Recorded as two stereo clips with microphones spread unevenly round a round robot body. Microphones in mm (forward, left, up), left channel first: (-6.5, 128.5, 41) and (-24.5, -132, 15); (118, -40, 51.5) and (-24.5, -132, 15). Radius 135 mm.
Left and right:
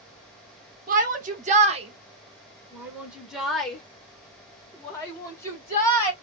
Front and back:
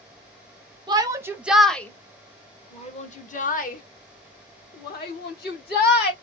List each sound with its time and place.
0.9 s a shout: 120° right, 1.0 m; by 6.1 s 5° left, 2.5 m